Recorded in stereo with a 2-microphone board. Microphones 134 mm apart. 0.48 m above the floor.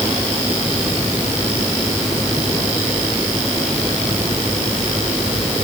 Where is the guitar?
I don't hear a guitar.